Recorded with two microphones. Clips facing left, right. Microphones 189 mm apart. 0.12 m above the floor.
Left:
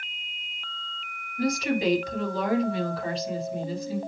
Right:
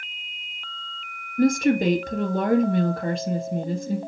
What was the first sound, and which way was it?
A woman speaking, 50° right (ahead or behind).